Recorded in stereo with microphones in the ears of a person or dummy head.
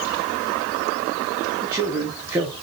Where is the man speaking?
10° right (ahead or behind), 0.6 m.